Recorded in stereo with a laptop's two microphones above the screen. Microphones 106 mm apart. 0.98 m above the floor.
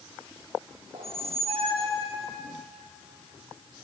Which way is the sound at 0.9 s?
65° right (ahead or behind).